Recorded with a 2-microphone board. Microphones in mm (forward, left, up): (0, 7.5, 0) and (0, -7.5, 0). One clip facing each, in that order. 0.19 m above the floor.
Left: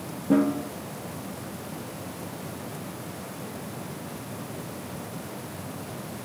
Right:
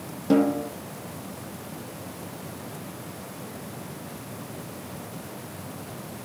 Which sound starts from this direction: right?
A snare drum, at 0.3 s.